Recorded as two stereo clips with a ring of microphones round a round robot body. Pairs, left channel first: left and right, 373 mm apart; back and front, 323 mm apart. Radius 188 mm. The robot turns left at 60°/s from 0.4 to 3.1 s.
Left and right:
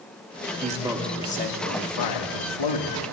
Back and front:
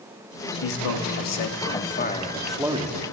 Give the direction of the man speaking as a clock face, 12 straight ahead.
5 o'clock.